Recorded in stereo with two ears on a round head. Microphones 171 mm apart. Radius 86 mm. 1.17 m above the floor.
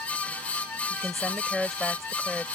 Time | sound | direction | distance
0.9 | a woman speaking | centre (ahead or behind) | ?